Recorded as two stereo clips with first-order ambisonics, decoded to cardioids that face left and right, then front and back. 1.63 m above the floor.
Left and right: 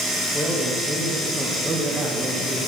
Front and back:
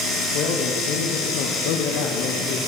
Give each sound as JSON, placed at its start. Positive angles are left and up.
{"t": 0.3, "sound": "a man speaking", "azimuth_deg": 20, "distance_m": 1.9}